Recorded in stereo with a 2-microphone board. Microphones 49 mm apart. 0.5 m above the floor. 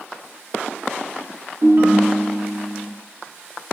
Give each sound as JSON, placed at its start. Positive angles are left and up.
{"t": 1.6, "sound": "a ringtone", "side_deg": -45, "distance_m": 0.5}